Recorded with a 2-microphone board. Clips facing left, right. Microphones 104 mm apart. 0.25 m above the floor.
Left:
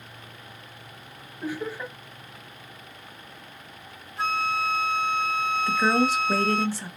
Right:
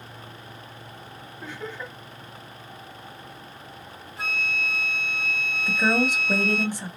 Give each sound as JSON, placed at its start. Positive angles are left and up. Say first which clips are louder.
{"t": 1.4, "sound": "laughter", "louder": "left 5 dB", "side_deg": 10, "distance_m": 1.0}
{"t": 4.2, "sound": "a flute", "louder": "left 6 dB", "side_deg": 0, "distance_m": 1.3}
{"t": 5.7, "sound": "a woman speaking", "louder": "even", "side_deg": -15, "distance_m": 1.1}